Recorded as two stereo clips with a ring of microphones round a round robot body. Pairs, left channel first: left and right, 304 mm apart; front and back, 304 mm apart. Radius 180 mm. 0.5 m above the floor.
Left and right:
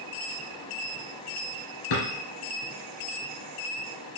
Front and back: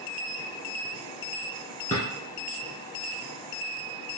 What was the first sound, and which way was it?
A drawer, 70° left.